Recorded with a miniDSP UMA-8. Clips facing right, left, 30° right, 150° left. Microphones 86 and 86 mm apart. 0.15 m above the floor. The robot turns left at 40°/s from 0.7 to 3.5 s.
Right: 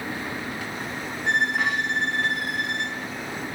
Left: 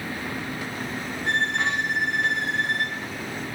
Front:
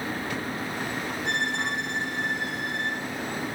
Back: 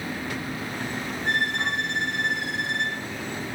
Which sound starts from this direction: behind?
A violin, at 1.2 s.